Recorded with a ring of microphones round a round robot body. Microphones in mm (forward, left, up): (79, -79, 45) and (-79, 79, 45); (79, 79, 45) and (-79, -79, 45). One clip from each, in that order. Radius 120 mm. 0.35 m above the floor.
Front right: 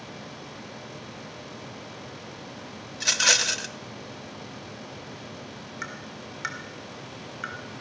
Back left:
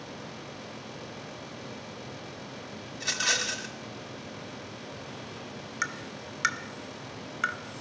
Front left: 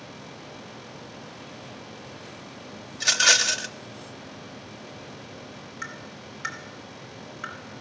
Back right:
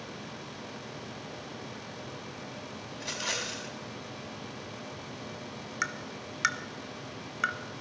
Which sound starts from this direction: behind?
Tapping, at 5.8 s.